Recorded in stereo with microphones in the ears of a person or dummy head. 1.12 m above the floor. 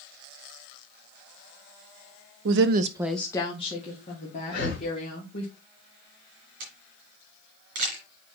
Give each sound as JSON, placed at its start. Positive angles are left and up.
{"t": 2.5, "sound": "a woman speaking", "side_deg": -65, "distance_m": 0.8}
{"t": 4.5, "sound": "breathing", "side_deg": 90, "distance_m": 3.0}
{"t": 6.6, "sound": "a camera shutter", "side_deg": -35, "distance_m": 3.0}